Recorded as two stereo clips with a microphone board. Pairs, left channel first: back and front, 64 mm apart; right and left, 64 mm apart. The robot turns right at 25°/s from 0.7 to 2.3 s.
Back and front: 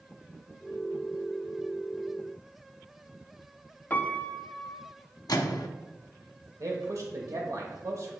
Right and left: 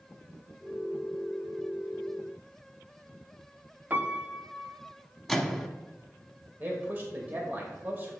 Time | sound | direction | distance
3.9 | a piano | 135° left | 0.6 m
5.3 | a microwave | straight behind | 0.8 m
6.6 | a man speaking | 30° left | 1.1 m